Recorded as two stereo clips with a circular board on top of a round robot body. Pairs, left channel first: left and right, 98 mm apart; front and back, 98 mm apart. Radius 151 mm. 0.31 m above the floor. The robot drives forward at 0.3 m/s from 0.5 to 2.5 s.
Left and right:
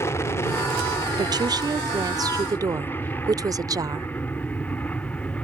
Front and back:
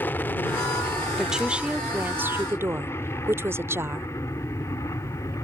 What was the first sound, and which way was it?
An aircraft, 55° left.